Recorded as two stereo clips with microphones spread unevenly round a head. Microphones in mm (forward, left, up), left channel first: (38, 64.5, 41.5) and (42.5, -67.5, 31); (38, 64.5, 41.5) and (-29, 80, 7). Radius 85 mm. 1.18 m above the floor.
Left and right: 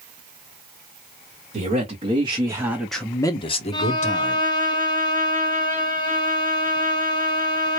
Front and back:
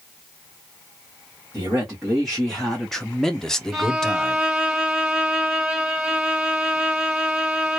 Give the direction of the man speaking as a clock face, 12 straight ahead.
4 o'clock.